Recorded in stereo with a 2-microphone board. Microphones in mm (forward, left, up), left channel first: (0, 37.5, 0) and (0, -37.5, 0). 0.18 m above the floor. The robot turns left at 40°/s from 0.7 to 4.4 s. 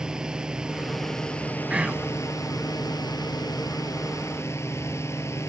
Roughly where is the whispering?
Centre.